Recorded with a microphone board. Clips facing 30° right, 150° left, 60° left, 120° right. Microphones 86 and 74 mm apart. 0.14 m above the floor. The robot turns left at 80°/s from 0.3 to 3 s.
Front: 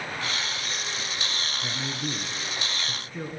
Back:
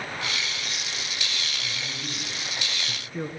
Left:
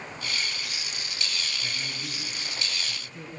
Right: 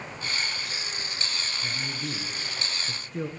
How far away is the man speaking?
About 2.5 m.